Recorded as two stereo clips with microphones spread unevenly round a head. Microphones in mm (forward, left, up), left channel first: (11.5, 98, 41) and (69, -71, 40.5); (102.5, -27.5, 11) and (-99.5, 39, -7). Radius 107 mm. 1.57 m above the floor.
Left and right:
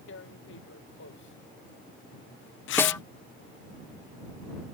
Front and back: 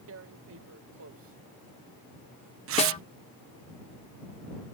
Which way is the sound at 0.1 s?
135° left.